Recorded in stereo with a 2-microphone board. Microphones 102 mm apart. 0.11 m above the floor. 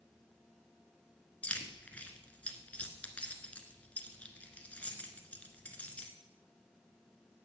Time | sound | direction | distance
1.4 | keys jangling | 15° left (ahead or behind) | 1.1 m